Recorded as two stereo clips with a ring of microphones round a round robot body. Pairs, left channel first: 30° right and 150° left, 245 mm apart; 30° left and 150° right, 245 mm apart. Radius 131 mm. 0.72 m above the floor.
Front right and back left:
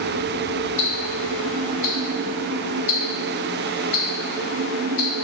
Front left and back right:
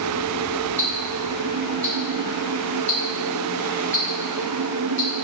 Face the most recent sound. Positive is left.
turn(degrees=-35)